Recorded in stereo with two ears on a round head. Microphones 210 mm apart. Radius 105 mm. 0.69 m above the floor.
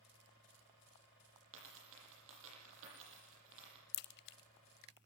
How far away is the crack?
About 0.7 m.